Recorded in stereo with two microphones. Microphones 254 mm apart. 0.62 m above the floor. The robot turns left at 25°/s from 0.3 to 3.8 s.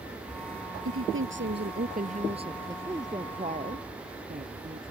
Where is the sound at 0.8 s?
120° right; by 2.8 s 165° right.